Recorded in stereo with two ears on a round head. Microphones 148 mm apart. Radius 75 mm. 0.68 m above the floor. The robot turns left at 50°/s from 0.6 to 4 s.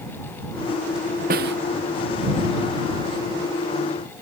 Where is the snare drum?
55° right (ahead or behind); by 1.6 s 70° right (ahead or behind).